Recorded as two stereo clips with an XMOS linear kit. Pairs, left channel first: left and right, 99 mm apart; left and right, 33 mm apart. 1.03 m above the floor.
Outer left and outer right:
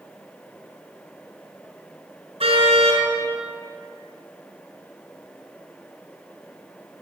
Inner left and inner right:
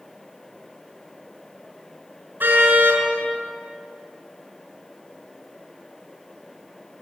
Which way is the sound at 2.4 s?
80° right.